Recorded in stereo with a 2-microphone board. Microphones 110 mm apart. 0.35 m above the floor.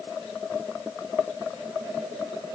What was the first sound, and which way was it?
Only background noise.